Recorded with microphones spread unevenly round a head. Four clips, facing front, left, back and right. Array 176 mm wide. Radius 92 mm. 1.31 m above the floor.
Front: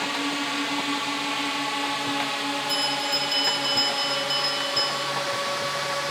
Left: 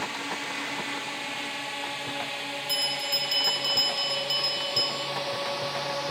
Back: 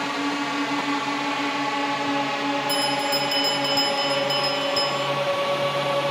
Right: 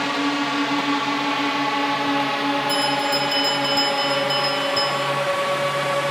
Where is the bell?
Straight behind.